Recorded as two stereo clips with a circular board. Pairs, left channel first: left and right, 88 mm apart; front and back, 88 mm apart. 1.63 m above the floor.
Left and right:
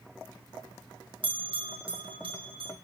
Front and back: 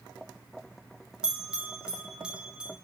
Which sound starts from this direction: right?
A bell, at 1.2 s.